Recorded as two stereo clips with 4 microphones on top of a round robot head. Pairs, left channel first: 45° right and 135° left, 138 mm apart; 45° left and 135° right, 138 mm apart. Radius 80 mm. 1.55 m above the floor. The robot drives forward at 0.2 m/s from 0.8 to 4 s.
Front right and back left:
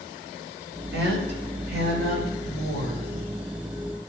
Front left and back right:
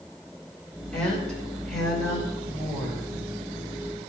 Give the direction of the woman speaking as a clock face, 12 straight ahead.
8 o'clock.